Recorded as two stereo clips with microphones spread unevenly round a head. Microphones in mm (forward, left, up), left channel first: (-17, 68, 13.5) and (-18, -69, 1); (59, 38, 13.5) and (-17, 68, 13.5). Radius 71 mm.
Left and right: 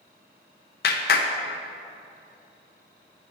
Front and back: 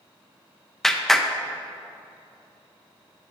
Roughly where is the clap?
Ahead left.